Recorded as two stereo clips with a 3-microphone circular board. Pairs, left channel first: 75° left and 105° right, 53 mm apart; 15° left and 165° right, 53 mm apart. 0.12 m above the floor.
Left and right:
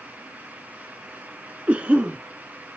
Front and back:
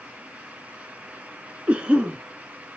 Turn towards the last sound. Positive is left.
turn(degrees=-130)